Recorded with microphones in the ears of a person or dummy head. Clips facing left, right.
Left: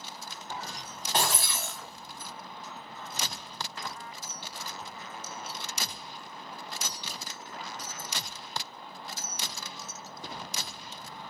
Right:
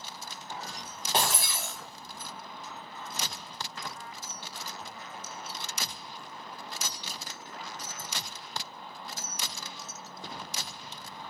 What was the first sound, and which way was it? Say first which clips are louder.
Breaking glass: even; 20° right (ahead or behind).